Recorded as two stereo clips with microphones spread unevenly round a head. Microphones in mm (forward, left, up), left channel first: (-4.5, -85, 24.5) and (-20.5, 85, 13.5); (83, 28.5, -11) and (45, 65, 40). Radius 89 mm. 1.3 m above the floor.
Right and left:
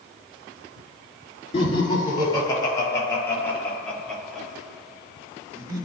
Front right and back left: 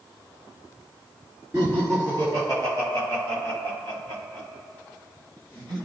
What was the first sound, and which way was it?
Laughter, 145° right.